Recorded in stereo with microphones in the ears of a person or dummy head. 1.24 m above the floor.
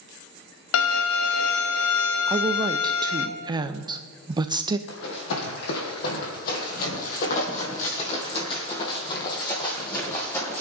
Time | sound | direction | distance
0.7 | a violin | 75° left (ahead or behind) | 0.9 m
2.3 | a woman speaking | 25° right (ahead or behind) | 0.6 m
4.9 | running footsteps | 60° left (ahead or behind) | 3.5 m